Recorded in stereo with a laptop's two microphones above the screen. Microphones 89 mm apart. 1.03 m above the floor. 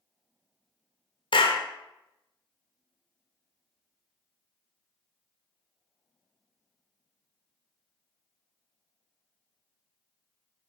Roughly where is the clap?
Left.